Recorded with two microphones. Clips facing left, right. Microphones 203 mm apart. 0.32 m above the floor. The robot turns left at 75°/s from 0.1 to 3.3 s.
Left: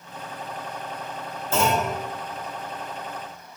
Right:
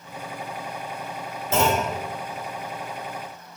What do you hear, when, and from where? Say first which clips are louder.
1.5 s a clunk: right 1 dB; 20° right (ahead or behind), 0.9 m; by 1.9 s 15° right (ahead or behind), 0.9 m